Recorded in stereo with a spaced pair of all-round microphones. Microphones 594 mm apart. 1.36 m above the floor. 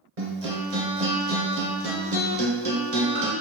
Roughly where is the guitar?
Right.